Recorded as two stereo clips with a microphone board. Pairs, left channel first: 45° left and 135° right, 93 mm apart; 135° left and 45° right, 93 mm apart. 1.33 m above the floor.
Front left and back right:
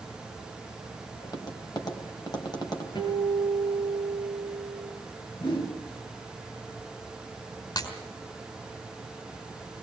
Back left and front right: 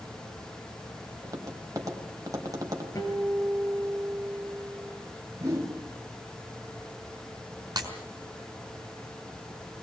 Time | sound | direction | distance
1.2 | tapping | 5° left | 3 m
3.0 | a guitar | 80° left | 6 m
5.4 | a whoosh | 10° left | 3.5 m
7.8 | breaking glass | straight ahead | 5 m